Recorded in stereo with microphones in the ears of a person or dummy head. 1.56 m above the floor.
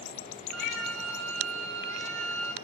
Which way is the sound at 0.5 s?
90° right.